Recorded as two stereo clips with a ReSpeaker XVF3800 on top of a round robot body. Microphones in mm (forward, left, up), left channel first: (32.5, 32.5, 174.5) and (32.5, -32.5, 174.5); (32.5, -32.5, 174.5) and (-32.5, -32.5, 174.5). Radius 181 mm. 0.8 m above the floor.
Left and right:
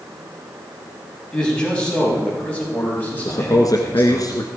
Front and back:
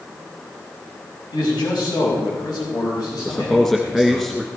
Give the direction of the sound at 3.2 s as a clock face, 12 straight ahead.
9 o'clock.